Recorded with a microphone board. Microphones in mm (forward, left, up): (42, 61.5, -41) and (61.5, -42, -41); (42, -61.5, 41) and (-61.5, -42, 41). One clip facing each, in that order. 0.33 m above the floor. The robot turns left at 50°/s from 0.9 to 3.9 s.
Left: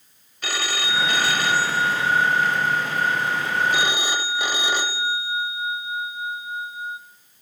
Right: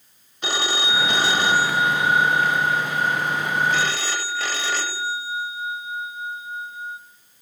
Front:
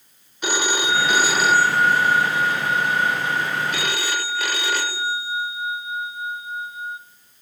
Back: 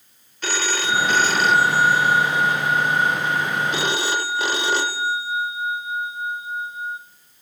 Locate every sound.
0.4 s a phone ringing: 60° right, 0.9 m; by 7.0 s 150° left, 0.9 m